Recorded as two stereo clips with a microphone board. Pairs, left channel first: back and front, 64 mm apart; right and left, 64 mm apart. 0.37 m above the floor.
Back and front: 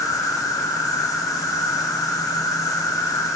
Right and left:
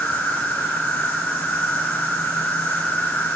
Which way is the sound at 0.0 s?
150° right.